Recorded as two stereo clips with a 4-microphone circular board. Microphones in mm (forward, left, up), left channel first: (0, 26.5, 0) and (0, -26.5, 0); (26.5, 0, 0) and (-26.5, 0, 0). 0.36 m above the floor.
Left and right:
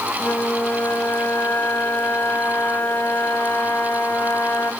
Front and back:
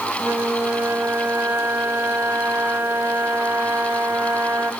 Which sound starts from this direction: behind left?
A flute, at 0.2 s.